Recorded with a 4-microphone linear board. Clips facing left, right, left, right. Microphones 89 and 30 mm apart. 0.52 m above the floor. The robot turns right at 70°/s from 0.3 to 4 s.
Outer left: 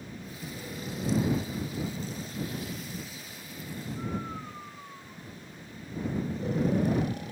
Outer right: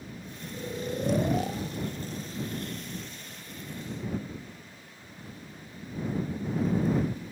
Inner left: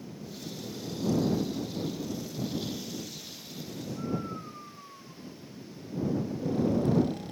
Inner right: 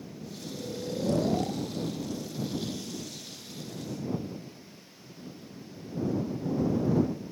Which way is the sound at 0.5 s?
20° right (ahead or behind).